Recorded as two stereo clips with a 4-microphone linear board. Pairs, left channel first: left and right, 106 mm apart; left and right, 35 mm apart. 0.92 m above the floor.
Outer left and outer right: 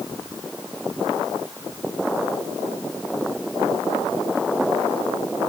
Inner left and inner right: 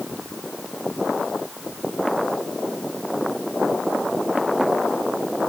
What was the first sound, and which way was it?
Only background noise.